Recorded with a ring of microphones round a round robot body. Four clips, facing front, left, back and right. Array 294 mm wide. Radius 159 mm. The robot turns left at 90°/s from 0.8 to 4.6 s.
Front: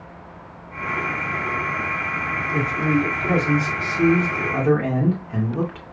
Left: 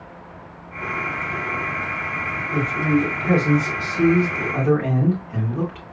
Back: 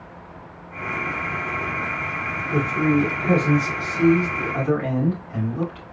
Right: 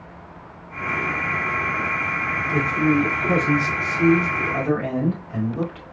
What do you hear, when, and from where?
2.5 s a man speaking: 155° right, 2.5 m; by 5.8 s 20° left, 2.5 m